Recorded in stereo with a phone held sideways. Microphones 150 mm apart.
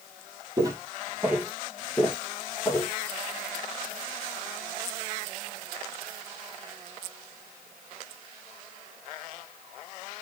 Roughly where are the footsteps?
Right.